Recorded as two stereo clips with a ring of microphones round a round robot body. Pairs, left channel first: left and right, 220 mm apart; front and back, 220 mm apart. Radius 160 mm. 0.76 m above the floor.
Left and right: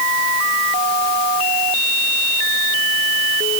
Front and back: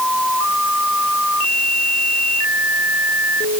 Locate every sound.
Only background noise.